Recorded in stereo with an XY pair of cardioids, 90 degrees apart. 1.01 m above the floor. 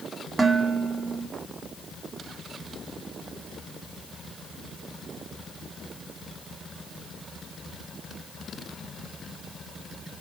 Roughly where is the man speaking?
No man speaking in this recording.